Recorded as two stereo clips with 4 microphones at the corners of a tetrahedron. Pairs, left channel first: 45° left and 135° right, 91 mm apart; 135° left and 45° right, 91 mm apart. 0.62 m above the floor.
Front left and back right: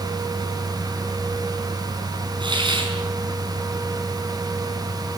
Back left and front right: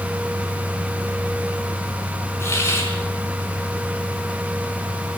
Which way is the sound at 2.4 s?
165° right.